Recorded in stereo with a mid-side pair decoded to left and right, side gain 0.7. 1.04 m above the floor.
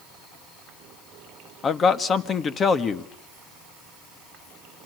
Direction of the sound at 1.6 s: 35° left.